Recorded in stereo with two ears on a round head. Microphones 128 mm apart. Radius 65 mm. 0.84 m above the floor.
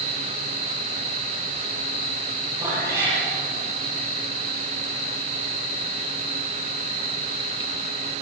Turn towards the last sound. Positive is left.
turn(degrees=-25)  # may be behind; listen again after turning